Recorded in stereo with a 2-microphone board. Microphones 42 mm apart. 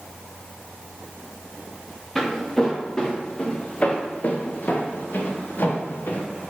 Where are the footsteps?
5° left (ahead or behind), 2.5 m; by 6.3 s 60° left (ahead or behind), 2.5 m.